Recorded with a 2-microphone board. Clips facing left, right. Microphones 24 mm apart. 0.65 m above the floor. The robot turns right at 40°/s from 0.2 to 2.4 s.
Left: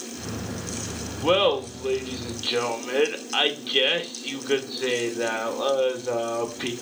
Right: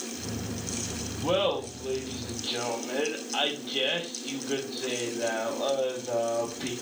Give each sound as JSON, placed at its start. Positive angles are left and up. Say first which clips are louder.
{"t": 1.2, "sound": "laughter", "louder": "left 6 dB", "azimuth_deg": 50, "distance_m": 1.9}